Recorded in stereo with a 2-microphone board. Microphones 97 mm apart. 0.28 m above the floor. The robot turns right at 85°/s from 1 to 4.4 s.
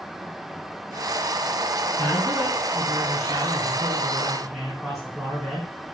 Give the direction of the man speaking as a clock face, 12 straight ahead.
7 o'clock.